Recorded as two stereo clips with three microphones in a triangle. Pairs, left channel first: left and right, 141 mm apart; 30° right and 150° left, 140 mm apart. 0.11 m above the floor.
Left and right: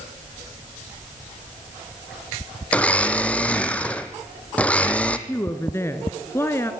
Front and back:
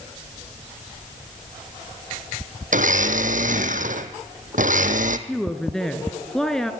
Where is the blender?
170° left, 1.2 m.